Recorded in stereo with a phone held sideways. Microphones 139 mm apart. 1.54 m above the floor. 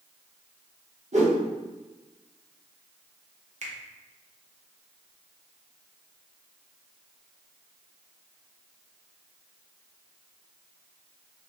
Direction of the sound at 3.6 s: 55° right (ahead or behind).